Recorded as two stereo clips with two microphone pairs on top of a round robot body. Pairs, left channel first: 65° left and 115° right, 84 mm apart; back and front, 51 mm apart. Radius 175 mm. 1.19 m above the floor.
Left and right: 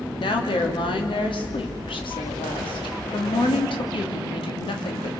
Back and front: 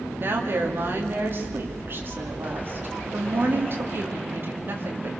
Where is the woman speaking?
50° left, 3 m.